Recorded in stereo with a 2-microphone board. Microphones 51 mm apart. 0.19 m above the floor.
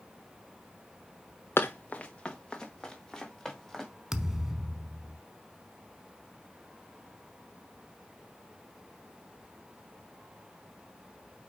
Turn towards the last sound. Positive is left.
turn(degrees=-5)  # may be behind; listen again after turning